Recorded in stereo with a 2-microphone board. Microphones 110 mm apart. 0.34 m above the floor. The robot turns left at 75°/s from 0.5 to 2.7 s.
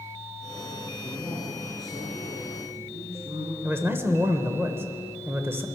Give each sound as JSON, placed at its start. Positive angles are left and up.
{"t": 1.0, "sound": "a man speaking", "azimuth_deg": 10, "distance_m": 6.5}
{"t": 3.6, "sound": "a man speaking", "side_deg": -20, "distance_m": 1.0}